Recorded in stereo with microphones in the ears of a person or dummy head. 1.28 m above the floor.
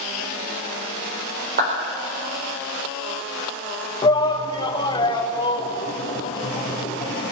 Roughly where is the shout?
Left.